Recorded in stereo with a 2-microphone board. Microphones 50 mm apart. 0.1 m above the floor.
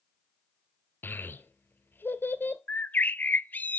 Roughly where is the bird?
Left.